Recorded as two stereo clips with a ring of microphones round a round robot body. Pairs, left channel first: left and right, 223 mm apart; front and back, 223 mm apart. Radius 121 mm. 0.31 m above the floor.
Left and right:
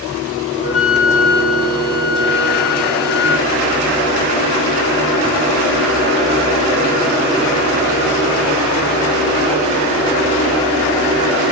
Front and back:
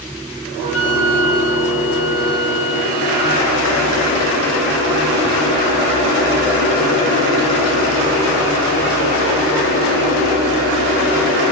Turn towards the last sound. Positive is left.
turn(degrees=-20)